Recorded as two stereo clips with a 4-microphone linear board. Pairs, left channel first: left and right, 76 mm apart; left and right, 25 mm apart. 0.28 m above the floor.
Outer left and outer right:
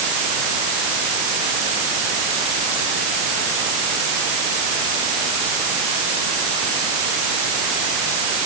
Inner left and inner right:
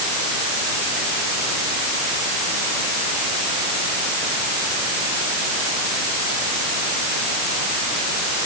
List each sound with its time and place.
Only background noise.